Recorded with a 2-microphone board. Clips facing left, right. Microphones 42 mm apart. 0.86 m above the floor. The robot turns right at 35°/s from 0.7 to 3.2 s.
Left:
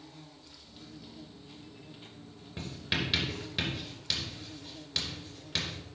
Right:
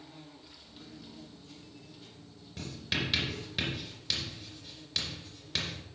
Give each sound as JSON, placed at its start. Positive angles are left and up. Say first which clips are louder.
{"t": 0.0, "sound": "an insect", "louder": "right 1 dB", "azimuth_deg": -10, "distance_m": 1.3}
{"t": 2.6, "sound": "writing", "louder": "left 1 dB", "side_deg": 25, "distance_m": 2.5}